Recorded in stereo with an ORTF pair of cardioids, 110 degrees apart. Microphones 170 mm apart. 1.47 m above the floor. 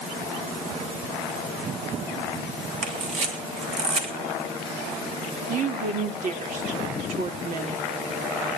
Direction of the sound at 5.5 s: 50° right.